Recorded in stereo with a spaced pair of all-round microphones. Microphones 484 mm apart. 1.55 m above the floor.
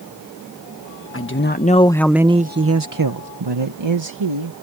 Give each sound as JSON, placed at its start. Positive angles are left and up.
{"t": 1.1, "sound": "a man speaking", "side_deg": 30}